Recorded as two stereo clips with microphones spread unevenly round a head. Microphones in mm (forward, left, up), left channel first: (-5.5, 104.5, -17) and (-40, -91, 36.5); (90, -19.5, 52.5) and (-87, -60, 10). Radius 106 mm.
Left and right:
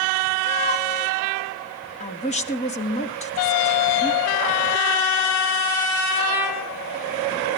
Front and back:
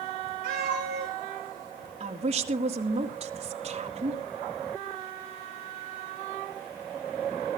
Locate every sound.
0.4 s a cat meowing: 140° left, 7.5 m
2.0 s a woman speaking: 135° left, 1.9 m